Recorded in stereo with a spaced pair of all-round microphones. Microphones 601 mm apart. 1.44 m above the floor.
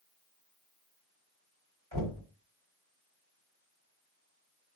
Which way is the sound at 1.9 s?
45° right (ahead or behind).